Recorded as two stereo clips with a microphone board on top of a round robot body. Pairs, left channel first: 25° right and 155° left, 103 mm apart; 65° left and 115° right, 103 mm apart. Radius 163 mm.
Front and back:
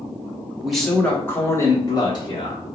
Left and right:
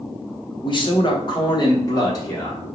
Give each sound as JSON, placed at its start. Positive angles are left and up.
{"t": 0.6, "sound": "a man speaking", "azimuth_deg": 75, "distance_m": 1.3}